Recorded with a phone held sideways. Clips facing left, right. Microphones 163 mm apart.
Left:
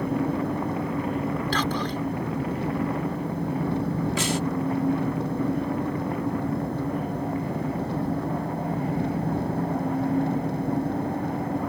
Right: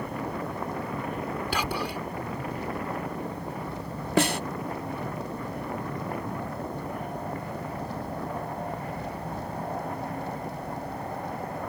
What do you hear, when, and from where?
0.0 s an engine running: 75° left (ahead or behind)
1.5 s whispering: 10° right (ahead or behind)
4.2 s a snare drum: 65° right (ahead or behind)